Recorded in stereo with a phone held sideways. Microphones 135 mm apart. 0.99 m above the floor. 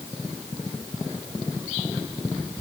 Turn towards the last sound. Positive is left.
No sound to turn to.